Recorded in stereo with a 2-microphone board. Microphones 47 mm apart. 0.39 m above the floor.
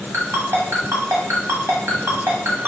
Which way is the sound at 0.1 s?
75° right (ahead or behind).